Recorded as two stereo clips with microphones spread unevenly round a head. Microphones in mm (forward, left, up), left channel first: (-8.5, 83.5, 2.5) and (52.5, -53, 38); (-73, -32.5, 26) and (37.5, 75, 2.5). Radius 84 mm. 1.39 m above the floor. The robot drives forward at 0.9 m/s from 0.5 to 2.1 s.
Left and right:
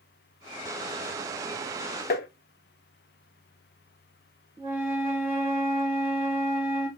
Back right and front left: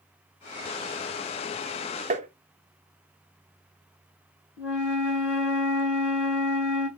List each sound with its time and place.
2.1 s tapping: 90° left, 0.6 m
4.6 s a flute: 145° right, 1.3 m